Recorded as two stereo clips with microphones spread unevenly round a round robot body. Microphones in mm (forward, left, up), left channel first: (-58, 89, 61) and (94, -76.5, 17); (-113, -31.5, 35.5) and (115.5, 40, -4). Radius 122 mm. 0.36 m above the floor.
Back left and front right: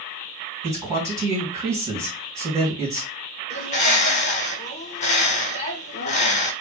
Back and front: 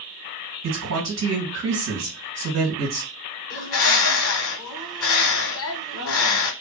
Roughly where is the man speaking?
Ahead.